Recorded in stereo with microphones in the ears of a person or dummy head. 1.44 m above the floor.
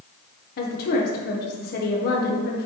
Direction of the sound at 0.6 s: 45° left (ahead or behind).